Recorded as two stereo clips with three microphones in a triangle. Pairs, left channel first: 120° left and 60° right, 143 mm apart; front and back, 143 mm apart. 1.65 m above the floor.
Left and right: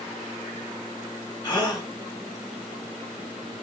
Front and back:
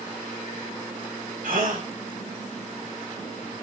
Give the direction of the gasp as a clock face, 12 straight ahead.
6 o'clock.